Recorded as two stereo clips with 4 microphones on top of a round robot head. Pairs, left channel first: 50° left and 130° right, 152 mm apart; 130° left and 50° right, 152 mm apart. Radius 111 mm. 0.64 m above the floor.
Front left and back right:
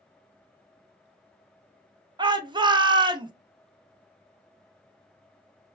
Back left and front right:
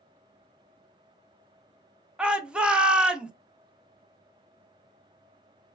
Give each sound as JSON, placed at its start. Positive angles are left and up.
{"t": 2.2, "sound": "a shout", "azimuth_deg": -130, "distance_m": 0.6}